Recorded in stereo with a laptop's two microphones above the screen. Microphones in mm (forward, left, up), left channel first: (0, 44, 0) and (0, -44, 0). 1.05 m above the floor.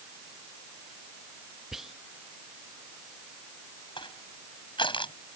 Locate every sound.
1.7 s whispering: 5° right (ahead or behind)
4.0 s crushing: 80° left